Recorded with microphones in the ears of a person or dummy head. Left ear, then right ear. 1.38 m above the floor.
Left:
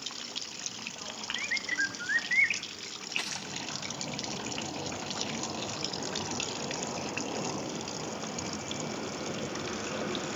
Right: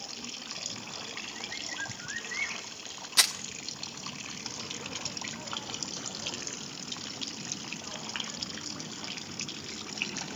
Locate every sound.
1.4 s a bird: 55° left (ahead or behind), 0.8 m
3.2 s crumpling: 60° right (ahead or behind), 1.3 m